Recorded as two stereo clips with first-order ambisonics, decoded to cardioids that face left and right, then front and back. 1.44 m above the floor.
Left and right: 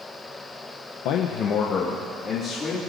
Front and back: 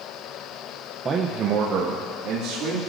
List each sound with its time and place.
1.1 s a man speaking: 110° left, 0.6 m; by 2.8 s 155° left, 2.5 m